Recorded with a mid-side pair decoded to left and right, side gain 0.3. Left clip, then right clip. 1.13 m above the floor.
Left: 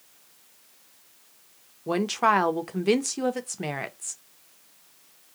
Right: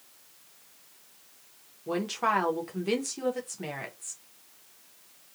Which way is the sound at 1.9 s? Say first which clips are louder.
Left 5 dB; 65° left.